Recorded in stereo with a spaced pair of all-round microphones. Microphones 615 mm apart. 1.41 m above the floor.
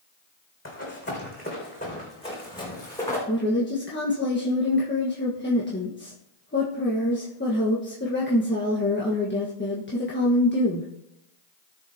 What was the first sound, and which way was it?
Running footsteps, 20° left (ahead or behind).